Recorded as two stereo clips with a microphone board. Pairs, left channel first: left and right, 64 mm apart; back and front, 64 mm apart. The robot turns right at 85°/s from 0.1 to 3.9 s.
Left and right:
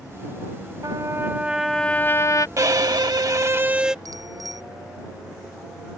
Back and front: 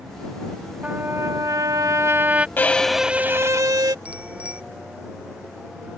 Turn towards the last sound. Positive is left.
turn(degrees=-75)